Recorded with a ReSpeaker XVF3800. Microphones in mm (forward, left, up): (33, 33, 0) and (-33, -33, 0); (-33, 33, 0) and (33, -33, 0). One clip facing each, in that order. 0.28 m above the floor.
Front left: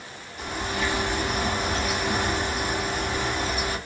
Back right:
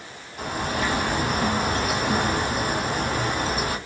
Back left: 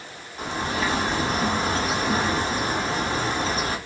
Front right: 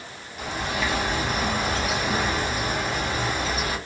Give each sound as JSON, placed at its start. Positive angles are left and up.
{"t": 0.4, "sound": "a bird", "azimuth_deg": -170, "distance_m": 1.1}